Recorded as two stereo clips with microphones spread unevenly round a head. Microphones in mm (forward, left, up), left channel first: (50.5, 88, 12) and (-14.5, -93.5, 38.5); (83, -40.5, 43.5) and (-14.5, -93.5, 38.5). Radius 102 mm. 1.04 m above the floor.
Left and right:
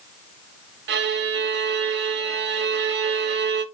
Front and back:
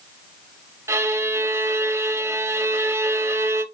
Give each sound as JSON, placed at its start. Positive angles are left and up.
{"t": 0.9, "sound": "a violin", "azimuth_deg": -90, "distance_m": 1.2}